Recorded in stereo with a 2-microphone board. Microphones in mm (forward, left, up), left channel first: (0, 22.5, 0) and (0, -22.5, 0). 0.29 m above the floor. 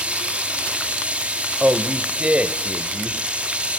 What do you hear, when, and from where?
0.0 s running water: 25° right (ahead or behind), 2.5 m
1.6 s a man speaking: 25° right (ahead or behind), 1.2 m